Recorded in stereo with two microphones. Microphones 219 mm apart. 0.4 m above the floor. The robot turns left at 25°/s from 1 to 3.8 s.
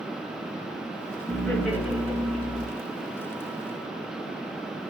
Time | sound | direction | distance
1.3 | laughter | 5° left | 4.5 m